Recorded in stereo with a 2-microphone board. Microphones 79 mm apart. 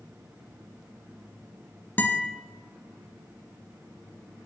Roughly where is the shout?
No shout in this recording.